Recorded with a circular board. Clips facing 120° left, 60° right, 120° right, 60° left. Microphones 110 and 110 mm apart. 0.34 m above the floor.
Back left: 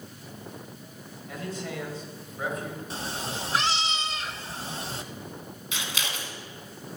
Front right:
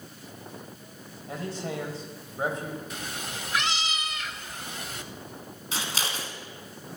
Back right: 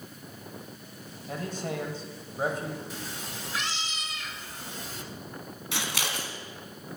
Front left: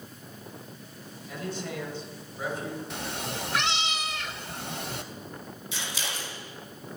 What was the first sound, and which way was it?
A man speaking, 105° right.